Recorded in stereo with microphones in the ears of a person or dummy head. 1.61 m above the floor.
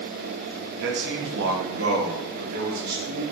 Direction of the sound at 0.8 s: 70° right (ahead or behind).